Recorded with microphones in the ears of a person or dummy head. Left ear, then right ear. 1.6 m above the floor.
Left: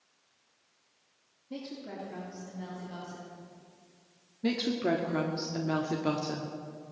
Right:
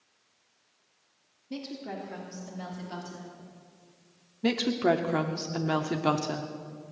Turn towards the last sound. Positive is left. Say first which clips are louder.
# right 4 dB
turn(degrees=-30)  # may be behind; listen again after turning